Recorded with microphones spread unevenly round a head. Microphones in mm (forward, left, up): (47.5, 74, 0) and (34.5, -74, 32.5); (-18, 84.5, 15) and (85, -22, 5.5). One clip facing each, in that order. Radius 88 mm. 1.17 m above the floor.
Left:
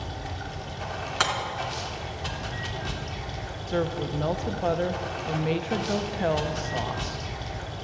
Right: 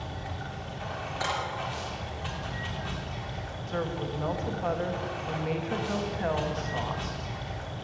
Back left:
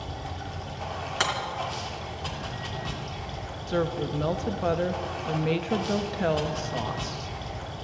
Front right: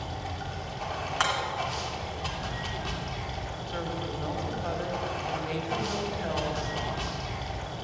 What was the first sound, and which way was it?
Running water, 40° left.